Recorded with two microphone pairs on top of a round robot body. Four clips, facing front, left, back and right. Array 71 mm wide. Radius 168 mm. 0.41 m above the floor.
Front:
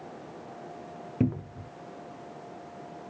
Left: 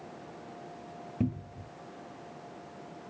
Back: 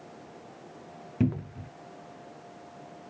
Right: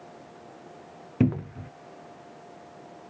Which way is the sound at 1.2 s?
90° right.